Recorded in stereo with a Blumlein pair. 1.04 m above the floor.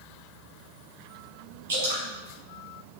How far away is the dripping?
About 3 m.